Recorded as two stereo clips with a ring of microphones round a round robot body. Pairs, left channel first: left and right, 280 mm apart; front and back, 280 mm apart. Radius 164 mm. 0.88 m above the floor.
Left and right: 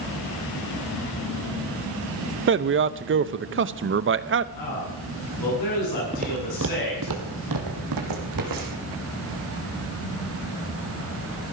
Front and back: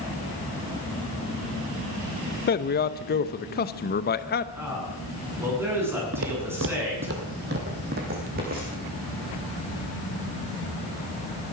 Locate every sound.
2.5 s a man speaking: 50° right, 0.8 m
4.5 s a man speaking: 100° left, 8 m
6.1 s footsteps: 155° right, 1.1 m; by 8.8 s 115° right, 3.5 m